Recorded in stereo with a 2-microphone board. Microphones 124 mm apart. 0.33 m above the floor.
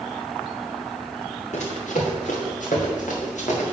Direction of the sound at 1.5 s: 65° left (ahead or behind).